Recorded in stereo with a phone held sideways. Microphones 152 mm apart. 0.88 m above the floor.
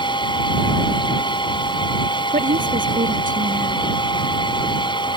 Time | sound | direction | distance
0.0 | a fan | 30° left (ahead or behind) | ?
2.3 | a woman speaking | 65° right (ahead or behind) | ?